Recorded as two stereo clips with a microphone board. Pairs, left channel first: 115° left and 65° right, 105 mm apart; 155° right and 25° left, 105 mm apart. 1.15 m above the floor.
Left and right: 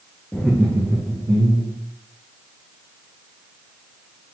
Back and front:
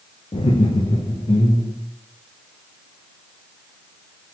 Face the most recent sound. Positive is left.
turn(degrees=-115)